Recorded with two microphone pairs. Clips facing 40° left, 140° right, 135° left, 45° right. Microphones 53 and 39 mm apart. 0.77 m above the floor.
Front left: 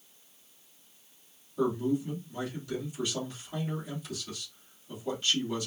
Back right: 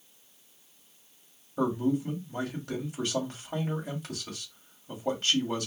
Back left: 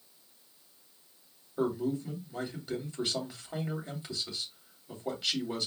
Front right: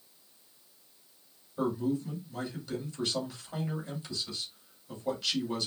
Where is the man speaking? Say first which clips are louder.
Back right 1 dB, even; 165° right, 2.5 m.